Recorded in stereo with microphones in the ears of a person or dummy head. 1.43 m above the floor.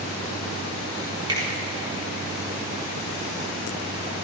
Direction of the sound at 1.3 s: 25° right (ahead or behind).